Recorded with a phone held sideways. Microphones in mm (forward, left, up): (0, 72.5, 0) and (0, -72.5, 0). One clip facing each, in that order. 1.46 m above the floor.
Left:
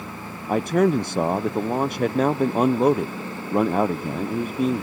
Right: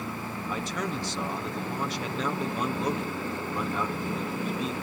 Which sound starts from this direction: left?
A man speaking, at 0.5 s.